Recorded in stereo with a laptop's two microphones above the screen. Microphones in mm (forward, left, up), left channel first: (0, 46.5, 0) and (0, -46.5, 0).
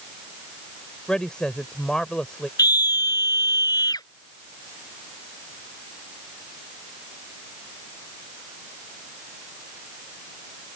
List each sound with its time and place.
1.1 s a woman speaking: 10° left (ahead or behind)
2.6 s a scream: 45° left (ahead or behind)